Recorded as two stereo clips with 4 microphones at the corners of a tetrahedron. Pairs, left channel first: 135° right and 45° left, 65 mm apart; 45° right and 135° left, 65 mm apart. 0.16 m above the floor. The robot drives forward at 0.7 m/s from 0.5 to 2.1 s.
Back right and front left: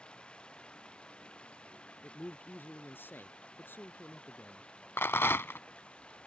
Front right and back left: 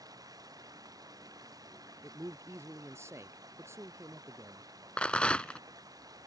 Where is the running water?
150° left.